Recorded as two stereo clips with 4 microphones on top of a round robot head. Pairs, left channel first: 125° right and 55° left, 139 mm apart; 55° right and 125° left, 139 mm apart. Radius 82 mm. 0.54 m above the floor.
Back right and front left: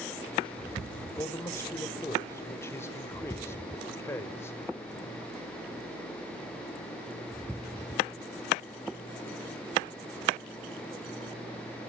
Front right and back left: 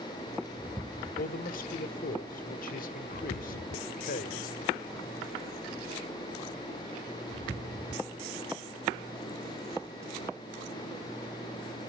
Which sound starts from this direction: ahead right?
A man speaking, at 1.2 s.